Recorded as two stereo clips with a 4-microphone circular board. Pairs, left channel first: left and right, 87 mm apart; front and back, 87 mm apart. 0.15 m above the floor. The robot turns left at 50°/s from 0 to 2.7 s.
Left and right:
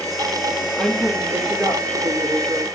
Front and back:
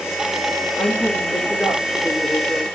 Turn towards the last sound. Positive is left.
turn(degrees=-110)